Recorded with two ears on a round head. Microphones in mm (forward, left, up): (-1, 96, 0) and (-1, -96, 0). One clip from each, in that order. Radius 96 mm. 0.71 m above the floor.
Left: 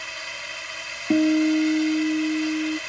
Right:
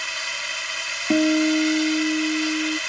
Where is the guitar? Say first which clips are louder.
Even; 35° right (ahead or behind).